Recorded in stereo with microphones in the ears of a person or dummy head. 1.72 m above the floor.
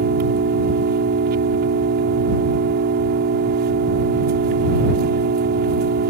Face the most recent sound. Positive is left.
turn(degrees=-45)  # may be behind; listen again after turning